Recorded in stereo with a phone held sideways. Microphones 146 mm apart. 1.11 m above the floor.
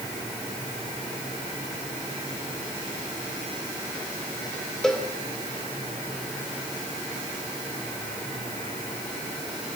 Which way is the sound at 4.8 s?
5° left (ahead or behind).